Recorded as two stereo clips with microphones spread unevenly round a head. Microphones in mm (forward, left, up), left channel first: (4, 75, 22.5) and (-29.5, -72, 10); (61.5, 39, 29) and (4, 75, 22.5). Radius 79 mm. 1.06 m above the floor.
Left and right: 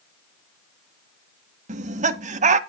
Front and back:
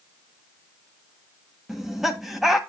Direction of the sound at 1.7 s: 130° right.